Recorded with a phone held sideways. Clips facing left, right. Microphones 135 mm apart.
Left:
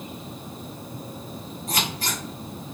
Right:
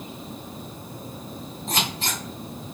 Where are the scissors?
25° right (ahead or behind), 1.9 m.